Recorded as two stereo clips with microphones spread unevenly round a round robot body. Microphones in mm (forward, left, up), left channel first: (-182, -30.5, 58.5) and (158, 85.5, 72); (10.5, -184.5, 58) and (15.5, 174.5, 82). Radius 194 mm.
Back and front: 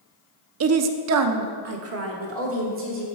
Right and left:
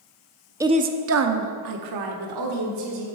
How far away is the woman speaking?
About 0.7 m.